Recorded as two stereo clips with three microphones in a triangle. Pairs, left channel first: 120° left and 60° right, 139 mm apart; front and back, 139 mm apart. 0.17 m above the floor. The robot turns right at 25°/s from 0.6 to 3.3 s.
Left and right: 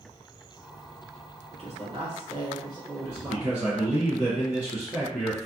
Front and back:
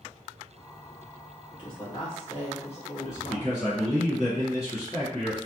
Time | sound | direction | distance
1.5 | a woman speaking | 45° right | 1.6 m
3.0 | a man speaking | 5° left | 1.5 m